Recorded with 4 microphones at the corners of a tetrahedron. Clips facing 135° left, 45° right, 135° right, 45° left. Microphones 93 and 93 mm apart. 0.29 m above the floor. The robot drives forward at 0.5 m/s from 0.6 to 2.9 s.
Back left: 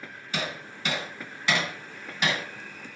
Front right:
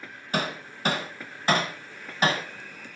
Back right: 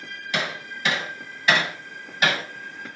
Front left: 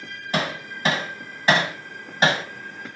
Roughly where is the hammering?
Ahead.